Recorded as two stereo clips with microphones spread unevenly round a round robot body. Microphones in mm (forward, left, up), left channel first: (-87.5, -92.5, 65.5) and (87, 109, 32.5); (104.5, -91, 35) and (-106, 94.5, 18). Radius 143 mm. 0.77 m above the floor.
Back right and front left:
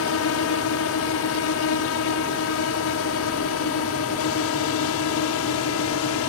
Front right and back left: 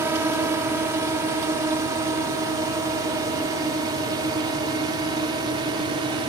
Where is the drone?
145° right; by 6.3 s 150° right.